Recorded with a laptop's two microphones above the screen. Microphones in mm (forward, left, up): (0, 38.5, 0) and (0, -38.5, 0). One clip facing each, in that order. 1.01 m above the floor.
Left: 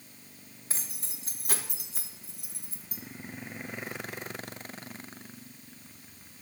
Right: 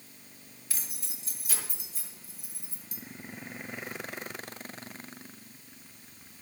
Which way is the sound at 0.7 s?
30° left (ahead or behind).